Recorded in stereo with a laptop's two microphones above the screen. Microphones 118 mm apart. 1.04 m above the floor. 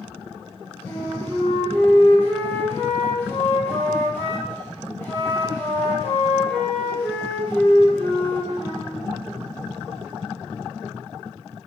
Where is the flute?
20° left (ahead or behind), 1.2 m.